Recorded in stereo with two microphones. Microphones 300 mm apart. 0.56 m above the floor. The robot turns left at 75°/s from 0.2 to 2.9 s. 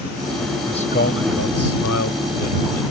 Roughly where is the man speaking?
Behind.